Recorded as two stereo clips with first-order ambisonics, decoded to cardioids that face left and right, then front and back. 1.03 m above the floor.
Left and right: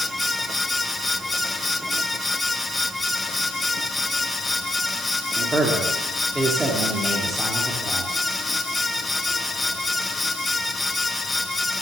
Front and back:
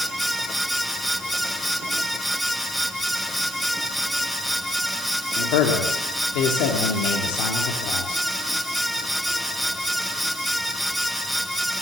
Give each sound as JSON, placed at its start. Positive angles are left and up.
{"t": 5.4, "sound": "a man speaking", "azimuth_deg": -10, "distance_m": 1.9}